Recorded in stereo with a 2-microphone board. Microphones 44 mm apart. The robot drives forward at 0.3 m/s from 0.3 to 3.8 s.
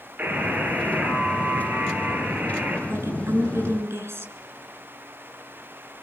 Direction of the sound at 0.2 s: 35° right (ahead or behind).